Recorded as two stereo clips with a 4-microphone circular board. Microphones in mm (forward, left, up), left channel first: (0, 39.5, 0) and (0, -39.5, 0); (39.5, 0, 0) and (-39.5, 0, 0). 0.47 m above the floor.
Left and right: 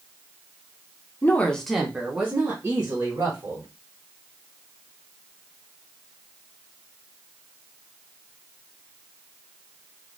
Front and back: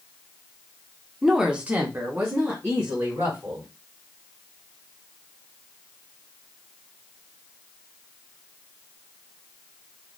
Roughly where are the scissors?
No scissors in this recording.